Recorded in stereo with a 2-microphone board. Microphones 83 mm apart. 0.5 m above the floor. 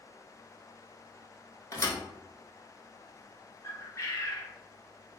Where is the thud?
40° left (ahead or behind), 0.7 m.